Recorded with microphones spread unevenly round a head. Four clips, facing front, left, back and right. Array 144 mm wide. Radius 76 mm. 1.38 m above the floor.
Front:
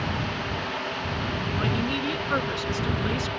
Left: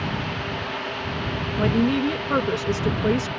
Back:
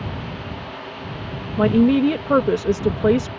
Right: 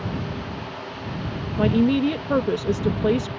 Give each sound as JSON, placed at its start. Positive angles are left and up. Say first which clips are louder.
{"t": 1.6, "sound": "a woman speaking", "louder": "right 2 dB, back 15 dB", "azimuth_deg": -170}